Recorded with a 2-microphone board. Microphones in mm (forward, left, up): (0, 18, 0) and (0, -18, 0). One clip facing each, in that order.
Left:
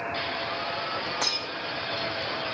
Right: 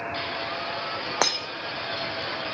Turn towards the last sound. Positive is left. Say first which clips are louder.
# right 4 dB
turn(degrees=-85)